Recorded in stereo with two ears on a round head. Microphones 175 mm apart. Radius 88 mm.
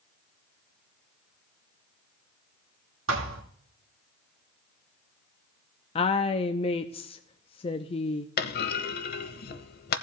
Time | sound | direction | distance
3.1 | a thud | 75° right (ahead or behind) | 2 m
6.0 | a woman speaking | 30° left (ahead or behind) | 0.6 m
8.4 | a clunk | 50° left (ahead or behind) | 0.8 m